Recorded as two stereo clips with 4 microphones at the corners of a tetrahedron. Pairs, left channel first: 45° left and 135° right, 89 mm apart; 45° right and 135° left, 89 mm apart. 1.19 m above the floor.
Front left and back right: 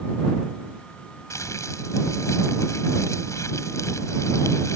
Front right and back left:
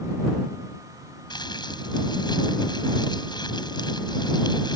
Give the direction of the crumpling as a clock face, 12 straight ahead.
12 o'clock.